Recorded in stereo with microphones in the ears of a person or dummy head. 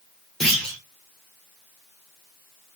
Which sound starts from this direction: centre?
A clunk, at 0.4 s.